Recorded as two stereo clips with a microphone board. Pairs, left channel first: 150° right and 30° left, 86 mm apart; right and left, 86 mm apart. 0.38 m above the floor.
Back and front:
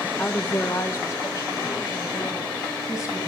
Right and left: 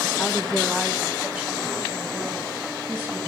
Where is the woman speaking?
90° right, 0.8 m; by 3.2 s 155° left, 4 m.